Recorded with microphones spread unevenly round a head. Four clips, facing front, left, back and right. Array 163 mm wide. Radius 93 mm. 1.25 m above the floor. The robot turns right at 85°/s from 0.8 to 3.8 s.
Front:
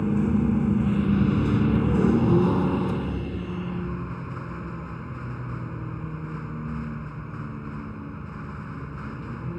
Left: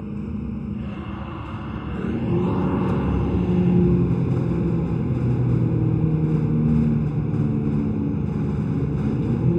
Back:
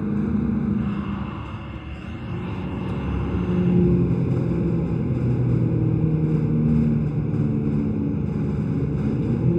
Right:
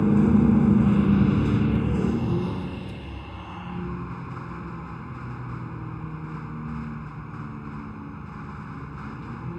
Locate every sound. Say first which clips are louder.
0.0 s a vehicle: right 11 dB, even; 110° right; by 9.6 s 145° left